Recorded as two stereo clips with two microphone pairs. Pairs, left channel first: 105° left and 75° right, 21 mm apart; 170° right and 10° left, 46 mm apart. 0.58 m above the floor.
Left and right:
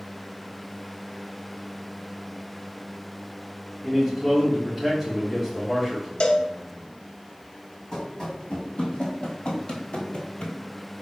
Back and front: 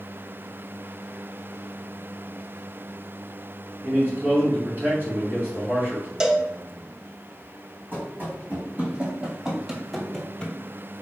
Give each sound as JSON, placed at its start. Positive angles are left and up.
{"t": 3.8, "sound": "a man speaking", "azimuth_deg": 0, "distance_m": 1.7}
{"t": 6.2, "sound": "a cowbell", "azimuth_deg": 85, "distance_m": 0.5}
{"t": 7.9, "sound": "running footsteps", "azimuth_deg": 50, "distance_m": 2.0}